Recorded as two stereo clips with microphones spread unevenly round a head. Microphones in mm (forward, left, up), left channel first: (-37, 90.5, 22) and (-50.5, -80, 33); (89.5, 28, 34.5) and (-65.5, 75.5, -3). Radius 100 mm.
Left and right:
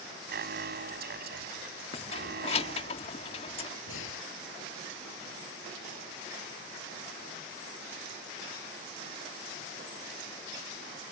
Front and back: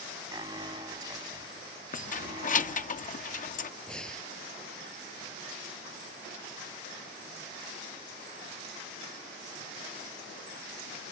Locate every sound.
0.3 s an alarm: 125° right
1.9 s keys jangling: 25° left
3.9 s breathing: 65° left